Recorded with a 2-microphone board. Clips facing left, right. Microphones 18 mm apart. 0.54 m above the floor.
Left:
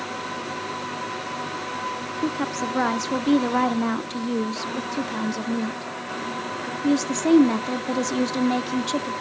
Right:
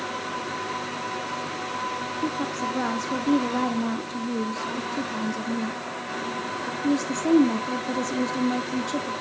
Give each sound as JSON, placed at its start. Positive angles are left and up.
{"t": 2.2, "sound": "a woman speaking", "side_deg": 35, "distance_m": 0.8}